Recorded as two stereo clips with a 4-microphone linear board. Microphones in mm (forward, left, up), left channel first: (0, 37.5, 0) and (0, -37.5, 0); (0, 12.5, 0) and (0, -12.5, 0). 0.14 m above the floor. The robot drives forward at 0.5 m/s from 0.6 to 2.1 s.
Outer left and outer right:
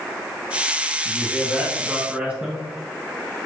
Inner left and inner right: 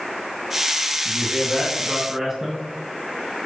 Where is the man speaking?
15° right (ahead or behind), 1.9 m; by 2.6 s 20° right (ahead or behind), 1.7 m.